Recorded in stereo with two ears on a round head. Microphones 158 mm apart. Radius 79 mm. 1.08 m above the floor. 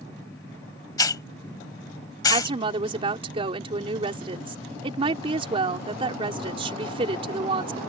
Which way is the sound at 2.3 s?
35° right (ahead or behind).